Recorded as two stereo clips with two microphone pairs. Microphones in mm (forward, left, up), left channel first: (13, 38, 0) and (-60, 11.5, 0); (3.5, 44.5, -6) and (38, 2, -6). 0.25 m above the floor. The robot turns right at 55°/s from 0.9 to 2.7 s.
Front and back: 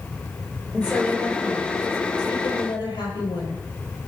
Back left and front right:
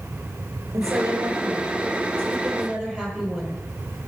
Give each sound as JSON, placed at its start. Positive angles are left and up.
{"t": 0.7, "sound": "a woman speaking", "azimuth_deg": -80, "distance_m": 5.5}